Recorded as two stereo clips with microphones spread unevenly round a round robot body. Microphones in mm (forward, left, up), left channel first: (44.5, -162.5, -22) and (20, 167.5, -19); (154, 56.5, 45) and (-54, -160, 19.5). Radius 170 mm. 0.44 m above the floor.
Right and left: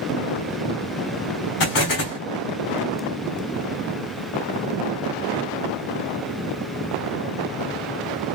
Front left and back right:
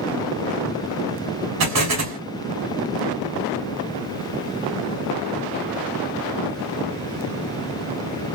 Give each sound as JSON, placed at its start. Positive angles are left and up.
{"t": 1.6, "sound": "an explosion", "azimuth_deg": -115, "distance_m": 1.9}